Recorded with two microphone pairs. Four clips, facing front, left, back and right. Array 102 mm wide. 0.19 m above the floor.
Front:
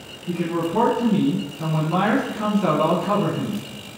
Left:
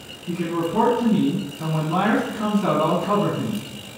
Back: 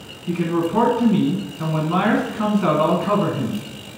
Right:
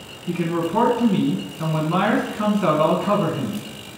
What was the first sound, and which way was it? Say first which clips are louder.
A man speaking: right 1 dB, back 3 dB; 145° right.